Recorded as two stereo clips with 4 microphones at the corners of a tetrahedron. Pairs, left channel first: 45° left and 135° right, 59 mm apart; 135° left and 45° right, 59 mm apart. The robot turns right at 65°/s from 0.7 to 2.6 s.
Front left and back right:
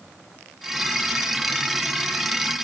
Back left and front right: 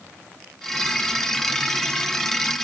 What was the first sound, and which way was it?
Only background noise.